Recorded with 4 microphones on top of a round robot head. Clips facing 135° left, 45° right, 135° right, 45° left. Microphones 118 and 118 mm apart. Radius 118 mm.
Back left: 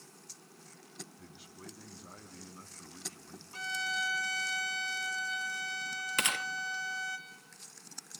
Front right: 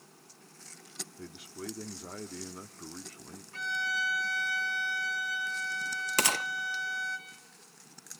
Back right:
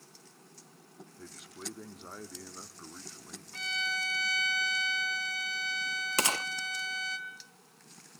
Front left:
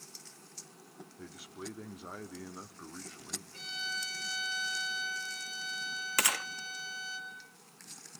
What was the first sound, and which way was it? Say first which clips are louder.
A man speaking: front right 9 dB, front left 1 dB; 40° right.